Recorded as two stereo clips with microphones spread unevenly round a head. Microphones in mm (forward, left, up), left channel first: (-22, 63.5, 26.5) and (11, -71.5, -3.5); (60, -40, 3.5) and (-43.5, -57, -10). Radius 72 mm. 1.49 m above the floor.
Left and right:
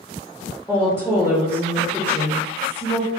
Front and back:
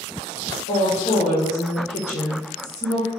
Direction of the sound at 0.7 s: 25° left.